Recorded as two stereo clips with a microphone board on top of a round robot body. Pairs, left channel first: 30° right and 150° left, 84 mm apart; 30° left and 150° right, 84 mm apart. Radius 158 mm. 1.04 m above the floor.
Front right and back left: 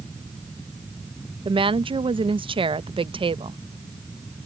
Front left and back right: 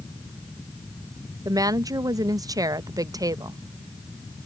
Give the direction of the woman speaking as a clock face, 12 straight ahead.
7 o'clock.